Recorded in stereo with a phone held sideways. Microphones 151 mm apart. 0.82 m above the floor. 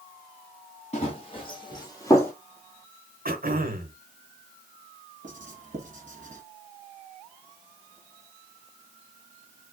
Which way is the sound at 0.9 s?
45° left (ahead or behind).